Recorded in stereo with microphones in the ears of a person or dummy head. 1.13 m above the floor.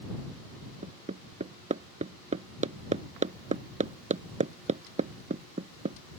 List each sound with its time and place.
0.8 s hammering: 35° right (ahead or behind)